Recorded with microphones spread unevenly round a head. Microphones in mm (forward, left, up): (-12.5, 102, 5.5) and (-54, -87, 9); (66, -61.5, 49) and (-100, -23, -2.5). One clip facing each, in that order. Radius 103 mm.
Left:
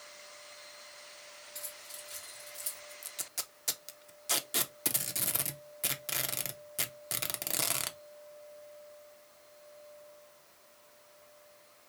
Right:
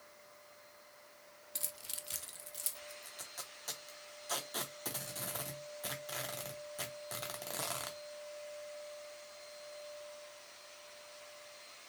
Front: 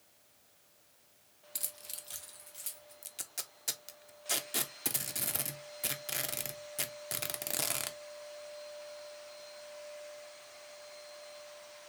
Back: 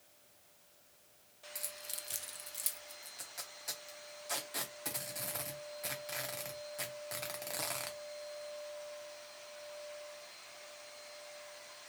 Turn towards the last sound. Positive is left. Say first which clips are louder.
# left 2 dB, even
turn(degrees=50)